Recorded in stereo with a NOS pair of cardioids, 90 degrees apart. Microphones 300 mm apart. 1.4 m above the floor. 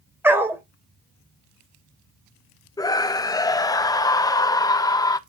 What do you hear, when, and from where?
0.2 s a dog barking: 5° right, 2.5 m
2.8 s a scream: 10° left, 0.6 m